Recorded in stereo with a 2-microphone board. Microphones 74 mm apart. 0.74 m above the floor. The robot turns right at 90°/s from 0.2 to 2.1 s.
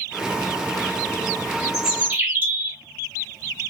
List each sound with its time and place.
1.7 s a bird: 175° left, 1.0 m; by 2.8 s 150° right, 1.0 m